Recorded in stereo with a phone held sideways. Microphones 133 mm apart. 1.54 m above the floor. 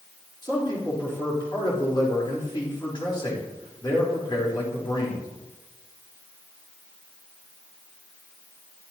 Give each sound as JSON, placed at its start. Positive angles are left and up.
{"t": 0.4, "sound": "a man speaking", "side_deg": 35, "distance_m": 4.0}